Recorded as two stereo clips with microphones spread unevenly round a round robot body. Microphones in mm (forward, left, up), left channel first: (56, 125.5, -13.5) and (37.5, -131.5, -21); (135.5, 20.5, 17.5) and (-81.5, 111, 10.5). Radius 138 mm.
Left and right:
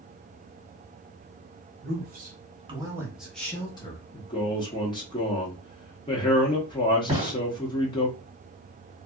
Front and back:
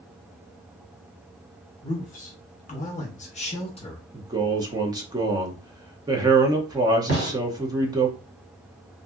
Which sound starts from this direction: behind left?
A man speaking, at 4.1 s.